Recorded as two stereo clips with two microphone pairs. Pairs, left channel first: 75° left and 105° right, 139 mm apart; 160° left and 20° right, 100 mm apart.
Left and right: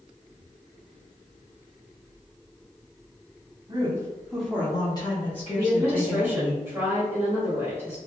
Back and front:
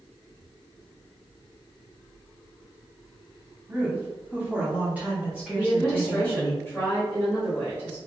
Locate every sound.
3.7 s a woman speaking: 85° right, 0.9 m; by 6.5 s 65° left, 1.9 m
5.5 s a woman speaking: 155° right, 1.3 m